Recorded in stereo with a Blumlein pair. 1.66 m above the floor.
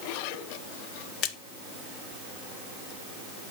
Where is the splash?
30° left, 0.9 m.